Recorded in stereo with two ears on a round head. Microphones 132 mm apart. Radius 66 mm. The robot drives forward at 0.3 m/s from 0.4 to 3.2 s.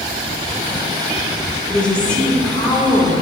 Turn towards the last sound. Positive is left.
turn(degrees=10)  # may be behind; listen again after turning